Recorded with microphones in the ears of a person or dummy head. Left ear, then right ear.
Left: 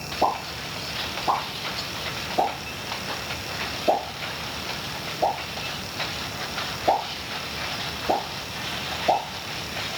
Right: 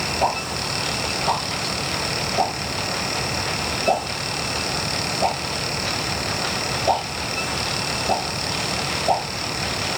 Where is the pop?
10° right (ahead or behind), 1.6 m.